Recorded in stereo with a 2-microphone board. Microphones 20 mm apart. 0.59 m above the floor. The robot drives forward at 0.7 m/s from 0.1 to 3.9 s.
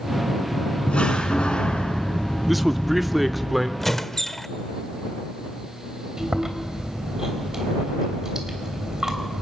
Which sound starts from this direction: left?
A door slam, at 0.9 s.